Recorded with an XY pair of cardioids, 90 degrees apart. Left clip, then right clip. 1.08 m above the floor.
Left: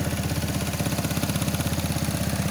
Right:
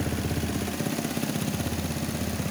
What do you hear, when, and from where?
Only background noise.